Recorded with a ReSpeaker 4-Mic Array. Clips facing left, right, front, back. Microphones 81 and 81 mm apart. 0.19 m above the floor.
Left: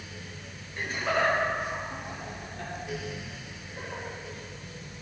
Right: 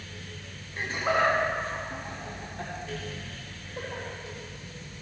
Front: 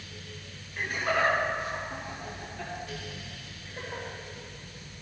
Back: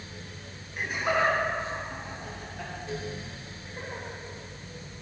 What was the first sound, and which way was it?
Laughter, 120° right.